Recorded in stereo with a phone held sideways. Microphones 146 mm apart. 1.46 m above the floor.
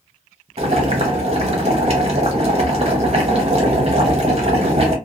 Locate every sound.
0.6 s boiling: 45° right (ahead or behind), 0.8 m